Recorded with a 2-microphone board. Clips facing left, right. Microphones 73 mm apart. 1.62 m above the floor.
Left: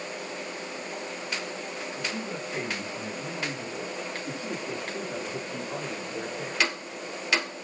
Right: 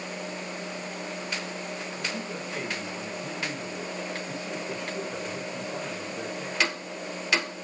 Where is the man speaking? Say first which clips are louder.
Left 2 dB; 20° left (ahead or behind), 3 m; by 6.7 s 65° left (ahead or behind), 4.5 m.